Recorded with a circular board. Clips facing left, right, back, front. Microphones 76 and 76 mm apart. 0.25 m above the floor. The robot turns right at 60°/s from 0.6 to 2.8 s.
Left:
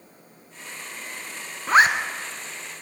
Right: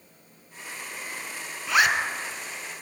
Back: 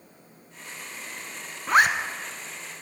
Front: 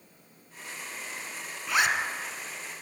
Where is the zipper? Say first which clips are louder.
Left 5 dB, back 6 dB; 135° left, 1.0 m; by 2.0 s 150° left, 1.0 m.